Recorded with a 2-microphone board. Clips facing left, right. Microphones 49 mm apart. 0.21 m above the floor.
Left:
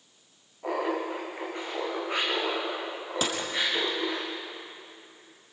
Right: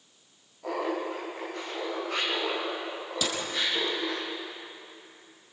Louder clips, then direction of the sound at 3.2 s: Left 1 dB; 35° left (ahead or behind).